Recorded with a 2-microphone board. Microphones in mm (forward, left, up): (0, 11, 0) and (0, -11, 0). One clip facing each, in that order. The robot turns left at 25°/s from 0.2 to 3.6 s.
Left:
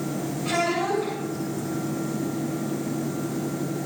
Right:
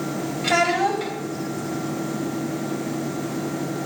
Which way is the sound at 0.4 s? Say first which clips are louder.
Right 5 dB; 70° right (ahead or behind).